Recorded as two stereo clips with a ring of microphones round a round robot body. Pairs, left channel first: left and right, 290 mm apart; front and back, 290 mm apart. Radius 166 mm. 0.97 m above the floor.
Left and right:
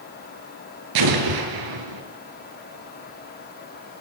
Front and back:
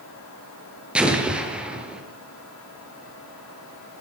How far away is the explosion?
About 5.5 m.